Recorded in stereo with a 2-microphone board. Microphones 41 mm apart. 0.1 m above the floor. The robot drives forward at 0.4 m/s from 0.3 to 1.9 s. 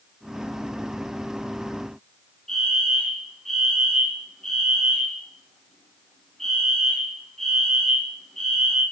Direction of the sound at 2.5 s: 10° left (ahead or behind).